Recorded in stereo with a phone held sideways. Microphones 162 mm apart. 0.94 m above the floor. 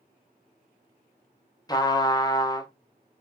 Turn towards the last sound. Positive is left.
turn(degrees=25)  # may be behind; listen again after turning